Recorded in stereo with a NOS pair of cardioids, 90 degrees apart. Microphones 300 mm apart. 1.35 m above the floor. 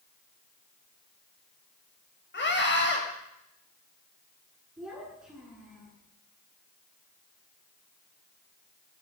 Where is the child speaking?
5° right, 8.5 m.